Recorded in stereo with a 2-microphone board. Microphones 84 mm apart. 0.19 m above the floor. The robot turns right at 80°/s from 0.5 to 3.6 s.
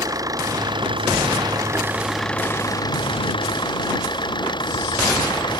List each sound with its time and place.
0.0 s an engine running: 135° right; by 5.6 s 115° left